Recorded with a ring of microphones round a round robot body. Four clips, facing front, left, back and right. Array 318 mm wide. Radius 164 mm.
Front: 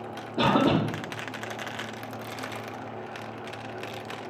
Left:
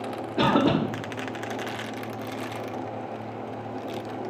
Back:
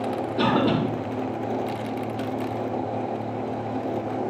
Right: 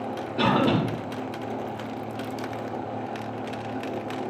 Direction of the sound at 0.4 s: 95° left.